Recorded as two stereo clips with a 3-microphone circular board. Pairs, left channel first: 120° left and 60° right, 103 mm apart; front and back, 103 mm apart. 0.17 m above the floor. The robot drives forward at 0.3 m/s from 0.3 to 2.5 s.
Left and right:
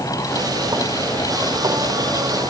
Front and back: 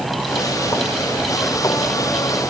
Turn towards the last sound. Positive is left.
No sound to turn to.